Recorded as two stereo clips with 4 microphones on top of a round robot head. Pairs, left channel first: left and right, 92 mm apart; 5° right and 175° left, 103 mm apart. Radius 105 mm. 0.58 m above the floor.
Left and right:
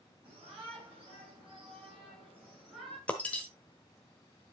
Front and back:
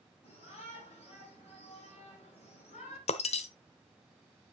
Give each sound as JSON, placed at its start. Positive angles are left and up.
{"t": 0.2, "sound": "a shout", "azimuth_deg": -10, "distance_m": 5.0}
{"t": 3.1, "sound": "breaking glass", "azimuth_deg": 10, "distance_m": 0.9}